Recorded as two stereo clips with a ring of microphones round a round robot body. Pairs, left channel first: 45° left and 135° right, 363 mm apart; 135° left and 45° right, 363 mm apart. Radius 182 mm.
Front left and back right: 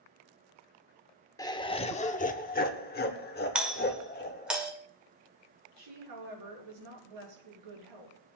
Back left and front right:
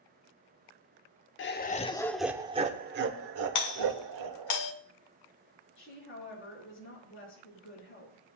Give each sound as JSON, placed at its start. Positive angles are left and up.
{"t": 1.4, "sound": "laughter", "azimuth_deg": 115, "distance_m": 1.0}
{"t": 3.5, "sound": "a doorbell", "azimuth_deg": 140, "distance_m": 1.7}
{"t": 5.8, "sound": "a woman speaking", "azimuth_deg": -165, "distance_m": 7.5}